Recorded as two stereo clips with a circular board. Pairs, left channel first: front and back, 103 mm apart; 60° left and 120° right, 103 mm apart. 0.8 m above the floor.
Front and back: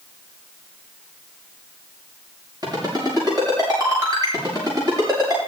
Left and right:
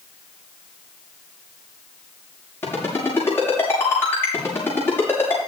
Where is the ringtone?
130° left, 7 m.